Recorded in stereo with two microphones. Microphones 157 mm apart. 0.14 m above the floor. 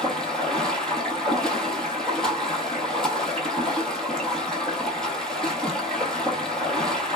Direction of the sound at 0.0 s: 5° left (ahead or behind).